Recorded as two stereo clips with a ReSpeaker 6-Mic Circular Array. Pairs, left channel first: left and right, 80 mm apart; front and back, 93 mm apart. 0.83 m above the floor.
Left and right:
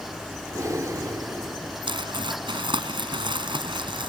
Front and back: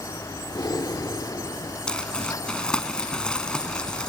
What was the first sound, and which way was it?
Breathing, 45° right.